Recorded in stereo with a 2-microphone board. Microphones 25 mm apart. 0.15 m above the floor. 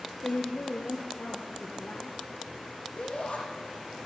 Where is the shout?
65° left (ahead or behind), 4.5 m.